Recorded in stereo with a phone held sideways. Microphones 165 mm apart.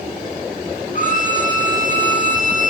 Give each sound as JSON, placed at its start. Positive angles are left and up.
{"t": 0.9, "sound": "a violin", "side_deg": 55, "distance_m": 1.9}